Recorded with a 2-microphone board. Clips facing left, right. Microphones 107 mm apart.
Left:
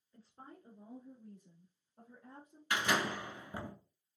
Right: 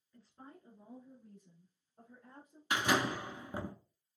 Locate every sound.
0.1 s a woman speaking: 25° left (ahead or behind), 1.3 m
2.7 s a door slam: 20° right (ahead or behind), 1.0 m